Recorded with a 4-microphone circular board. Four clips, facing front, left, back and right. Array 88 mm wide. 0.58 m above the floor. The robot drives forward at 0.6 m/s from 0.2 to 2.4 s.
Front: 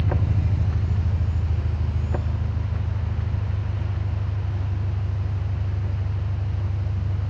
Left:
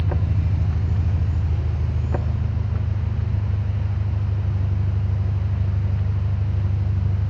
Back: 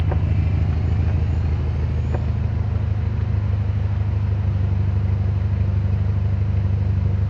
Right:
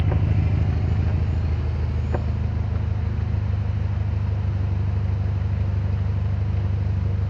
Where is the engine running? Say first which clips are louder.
Right 1 dB, back 1 dB; 110° right, 0.9 m; by 7.3 s 160° right, 1.7 m.